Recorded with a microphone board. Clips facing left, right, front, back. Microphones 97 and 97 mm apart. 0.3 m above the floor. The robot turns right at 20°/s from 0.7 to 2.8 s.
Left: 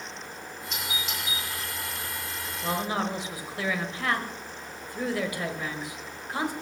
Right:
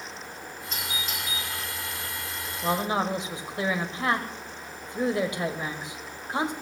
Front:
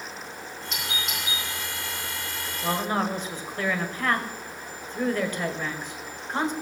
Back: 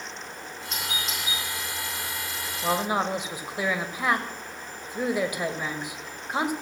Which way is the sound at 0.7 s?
140° right.